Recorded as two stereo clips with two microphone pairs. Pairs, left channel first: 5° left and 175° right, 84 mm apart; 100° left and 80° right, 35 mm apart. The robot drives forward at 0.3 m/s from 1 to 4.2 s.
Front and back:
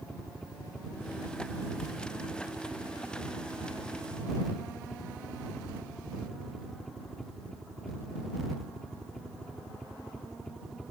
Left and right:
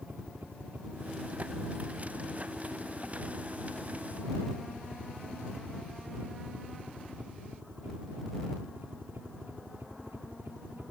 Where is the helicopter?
75° right; by 10.9 s 80° right.